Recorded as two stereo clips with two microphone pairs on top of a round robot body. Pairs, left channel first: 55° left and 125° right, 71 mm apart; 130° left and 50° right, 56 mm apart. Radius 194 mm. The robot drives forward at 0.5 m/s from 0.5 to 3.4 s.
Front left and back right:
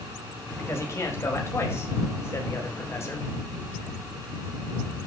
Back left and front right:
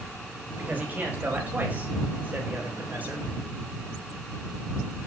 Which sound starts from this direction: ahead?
A man speaking, at 0.6 s.